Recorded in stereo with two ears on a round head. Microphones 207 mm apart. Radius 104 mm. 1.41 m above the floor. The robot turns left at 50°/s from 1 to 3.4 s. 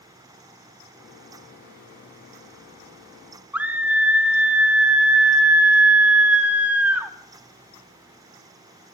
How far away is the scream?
About 0.8 m.